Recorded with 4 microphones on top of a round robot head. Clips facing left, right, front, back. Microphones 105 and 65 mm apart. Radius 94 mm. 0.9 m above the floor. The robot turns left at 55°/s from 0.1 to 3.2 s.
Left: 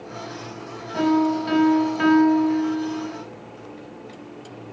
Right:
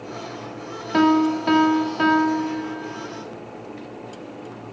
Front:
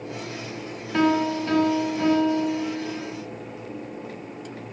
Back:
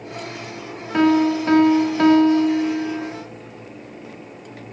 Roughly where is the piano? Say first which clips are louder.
Right 2 dB, back 5 dB; right.